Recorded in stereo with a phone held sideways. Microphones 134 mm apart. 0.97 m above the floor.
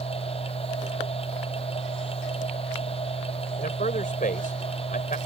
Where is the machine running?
45° left (ahead or behind).